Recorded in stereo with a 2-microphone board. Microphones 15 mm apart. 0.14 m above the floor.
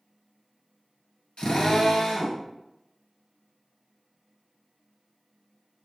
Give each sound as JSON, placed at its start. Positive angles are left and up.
{"t": 1.4, "sound": "a drill", "side_deg": 60, "distance_m": 1.2}